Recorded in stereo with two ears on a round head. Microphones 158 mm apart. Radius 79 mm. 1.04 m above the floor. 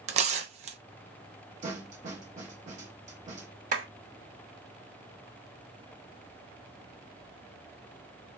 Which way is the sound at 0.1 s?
40° right (ahead or behind).